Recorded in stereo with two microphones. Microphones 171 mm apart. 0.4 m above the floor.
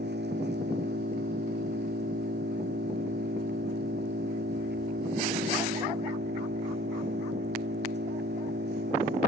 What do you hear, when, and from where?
0.0 s an engine running: 80° right